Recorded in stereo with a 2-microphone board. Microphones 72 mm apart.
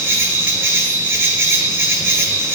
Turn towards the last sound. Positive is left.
turn(degrees=-30)  # may be behind; listen again after turning